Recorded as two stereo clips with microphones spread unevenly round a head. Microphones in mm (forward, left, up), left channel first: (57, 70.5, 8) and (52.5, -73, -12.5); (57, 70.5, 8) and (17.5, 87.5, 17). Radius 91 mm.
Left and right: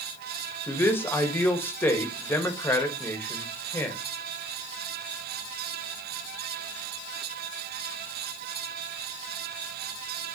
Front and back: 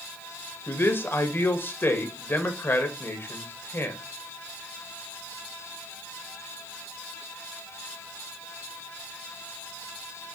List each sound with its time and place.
0.7 s a man speaking: 10° left, 2 m